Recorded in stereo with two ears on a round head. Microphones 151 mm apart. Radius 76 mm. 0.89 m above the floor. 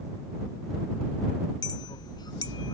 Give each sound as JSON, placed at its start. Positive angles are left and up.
{"t": 1.6, "sound": "a clink", "side_deg": 25}